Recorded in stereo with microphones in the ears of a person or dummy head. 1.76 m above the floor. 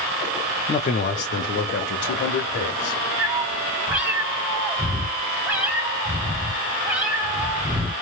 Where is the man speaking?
30° left (ahead or behind), 0.6 m; by 3.0 s 75° left (ahead or behind), 1.8 m.